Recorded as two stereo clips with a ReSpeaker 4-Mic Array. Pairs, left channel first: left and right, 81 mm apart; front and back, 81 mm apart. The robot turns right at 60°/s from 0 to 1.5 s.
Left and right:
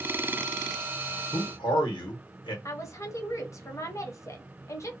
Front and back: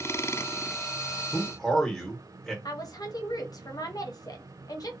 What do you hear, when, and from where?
1.3 s a man speaking: 75° left, 1.4 m; by 2.5 s 85° left, 1.4 m
2.6 s a woman speaking: 40° left, 0.8 m